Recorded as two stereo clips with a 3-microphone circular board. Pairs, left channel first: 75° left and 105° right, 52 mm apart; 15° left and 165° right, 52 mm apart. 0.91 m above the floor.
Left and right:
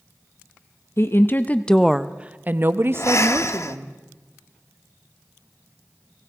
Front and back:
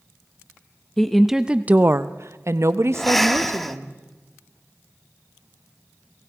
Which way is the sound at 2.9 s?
100° left.